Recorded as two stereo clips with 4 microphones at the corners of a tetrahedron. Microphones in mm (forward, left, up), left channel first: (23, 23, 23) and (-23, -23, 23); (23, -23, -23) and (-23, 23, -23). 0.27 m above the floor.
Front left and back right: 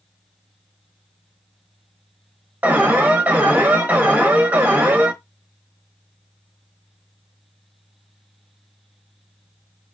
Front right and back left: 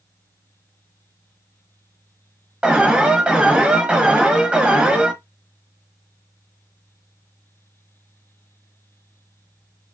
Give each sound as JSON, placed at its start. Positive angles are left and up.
{"t": 2.6, "sound": "an alarm", "azimuth_deg": -165, "distance_m": 1.0}